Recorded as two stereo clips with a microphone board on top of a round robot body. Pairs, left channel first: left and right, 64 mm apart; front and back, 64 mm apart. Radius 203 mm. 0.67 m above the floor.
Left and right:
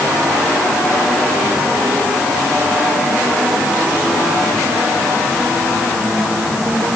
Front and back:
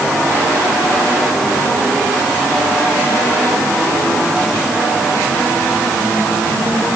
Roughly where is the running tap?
I don't hear a running tap.